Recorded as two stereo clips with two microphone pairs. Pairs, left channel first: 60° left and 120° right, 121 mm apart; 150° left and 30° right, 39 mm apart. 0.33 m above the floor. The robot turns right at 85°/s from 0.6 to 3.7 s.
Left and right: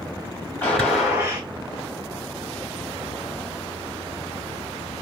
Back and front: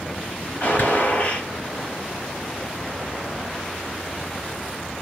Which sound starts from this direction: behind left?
A gunshot, at 0.6 s.